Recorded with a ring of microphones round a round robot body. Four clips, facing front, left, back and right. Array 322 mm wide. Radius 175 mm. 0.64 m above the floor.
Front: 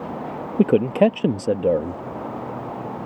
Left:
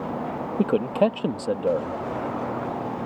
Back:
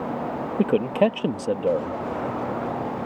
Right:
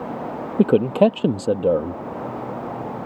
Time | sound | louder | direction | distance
0.6 | a man speaking | right 6 dB, front 4 dB | 55° right | ?